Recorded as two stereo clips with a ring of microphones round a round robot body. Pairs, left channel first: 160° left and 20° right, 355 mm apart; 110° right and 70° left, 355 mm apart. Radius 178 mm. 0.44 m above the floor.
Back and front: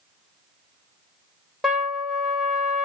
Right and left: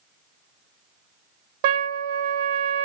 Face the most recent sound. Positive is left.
turn(degrees=65)